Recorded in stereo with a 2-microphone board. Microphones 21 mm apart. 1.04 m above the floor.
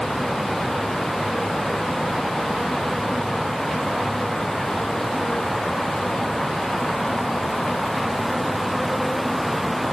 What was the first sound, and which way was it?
Only background noise.